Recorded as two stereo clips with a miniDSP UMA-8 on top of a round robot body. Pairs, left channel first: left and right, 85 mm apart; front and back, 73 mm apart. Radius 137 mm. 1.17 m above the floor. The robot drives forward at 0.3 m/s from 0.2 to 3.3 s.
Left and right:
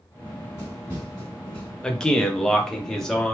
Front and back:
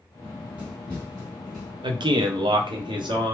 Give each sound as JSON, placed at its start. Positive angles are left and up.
{"t": 0.2, "sound": "running footsteps", "azimuth_deg": 100, "distance_m": 1.3}
{"t": 1.8, "sound": "a man speaking", "azimuth_deg": 170, "distance_m": 0.5}